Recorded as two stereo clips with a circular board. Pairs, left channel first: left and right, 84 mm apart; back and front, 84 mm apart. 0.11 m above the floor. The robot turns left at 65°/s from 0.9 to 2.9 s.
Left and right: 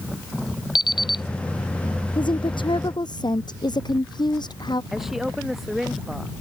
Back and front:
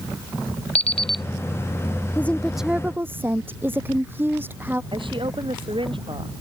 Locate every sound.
0.8 s an alarm clock: 105° left; by 1.2 s 85° left
2.1 s a woman speaking: 115° left; by 4.8 s 65° left
4.9 s a woman speaking: 5° right